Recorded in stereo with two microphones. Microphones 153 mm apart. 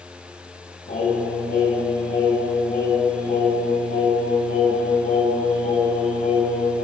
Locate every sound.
0.9 s singing: 55° left (ahead or behind), 9.5 m